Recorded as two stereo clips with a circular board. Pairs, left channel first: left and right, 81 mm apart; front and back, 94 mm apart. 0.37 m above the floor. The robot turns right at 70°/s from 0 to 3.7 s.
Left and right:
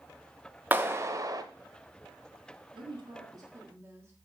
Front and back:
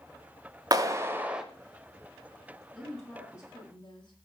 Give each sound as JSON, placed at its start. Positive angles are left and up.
{"t": 0.7, "sound": "a clap", "azimuth_deg": -150, "distance_m": 1.0}
{"t": 2.7, "sound": "a woman speaking", "azimuth_deg": -105, "distance_m": 3.0}